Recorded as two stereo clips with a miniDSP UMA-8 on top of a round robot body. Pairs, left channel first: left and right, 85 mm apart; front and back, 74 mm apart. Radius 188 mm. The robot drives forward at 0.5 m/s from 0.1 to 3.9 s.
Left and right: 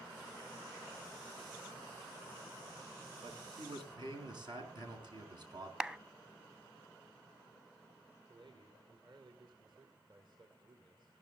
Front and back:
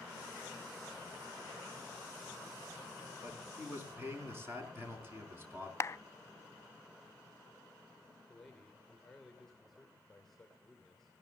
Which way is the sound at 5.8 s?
15° right.